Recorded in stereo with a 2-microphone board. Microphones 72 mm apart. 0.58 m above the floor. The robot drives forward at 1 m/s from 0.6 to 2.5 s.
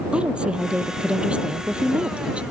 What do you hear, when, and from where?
0.1 s a woman speaking: 15° right (ahead or behind)